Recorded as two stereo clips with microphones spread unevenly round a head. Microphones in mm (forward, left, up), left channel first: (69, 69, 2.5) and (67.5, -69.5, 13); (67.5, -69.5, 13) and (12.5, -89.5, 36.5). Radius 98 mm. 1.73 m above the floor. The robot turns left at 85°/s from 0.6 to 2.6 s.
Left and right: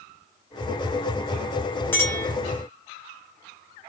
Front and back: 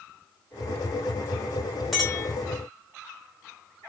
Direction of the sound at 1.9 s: 160° left.